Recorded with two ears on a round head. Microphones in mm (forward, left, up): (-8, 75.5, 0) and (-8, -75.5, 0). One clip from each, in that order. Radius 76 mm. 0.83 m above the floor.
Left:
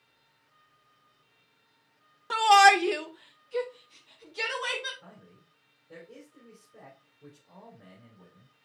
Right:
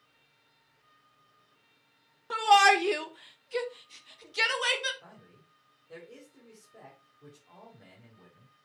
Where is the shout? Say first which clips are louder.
Left 3 dB; 30° left (ahead or behind), 0.8 m; by 4.9 s 55° right (ahead or behind), 2 m.